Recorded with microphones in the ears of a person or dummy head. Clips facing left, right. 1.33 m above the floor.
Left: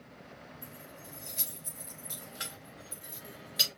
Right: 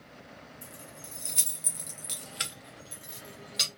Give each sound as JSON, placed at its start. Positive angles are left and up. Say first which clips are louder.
{"t": 0.6, "sound": "keys jangling", "louder": "right 1 dB", "side_deg": -55, "distance_m": 1.2}